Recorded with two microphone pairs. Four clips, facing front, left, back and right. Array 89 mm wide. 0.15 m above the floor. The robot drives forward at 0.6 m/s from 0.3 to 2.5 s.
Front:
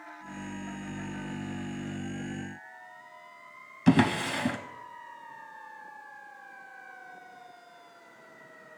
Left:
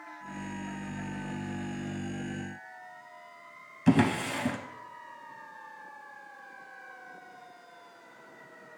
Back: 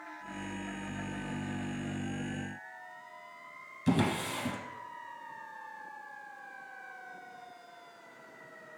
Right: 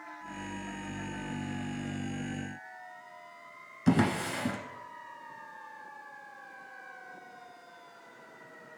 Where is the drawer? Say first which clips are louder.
Left 2 dB, front 6 dB; 10° right, 0.5 m.